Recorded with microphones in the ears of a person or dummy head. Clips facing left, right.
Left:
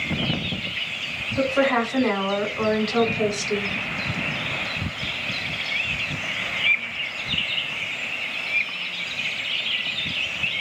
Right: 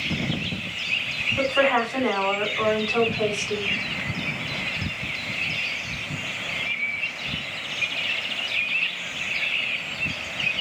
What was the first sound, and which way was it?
A woman speaking, 35° left (ahead or behind).